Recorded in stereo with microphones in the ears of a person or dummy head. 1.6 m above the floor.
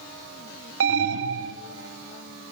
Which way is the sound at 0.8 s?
60° right (ahead or behind).